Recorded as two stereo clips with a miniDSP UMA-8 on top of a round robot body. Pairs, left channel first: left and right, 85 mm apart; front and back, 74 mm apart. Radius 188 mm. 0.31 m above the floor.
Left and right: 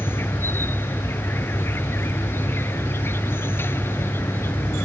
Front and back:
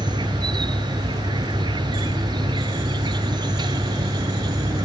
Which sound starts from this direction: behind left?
An insect, at 0.0 s.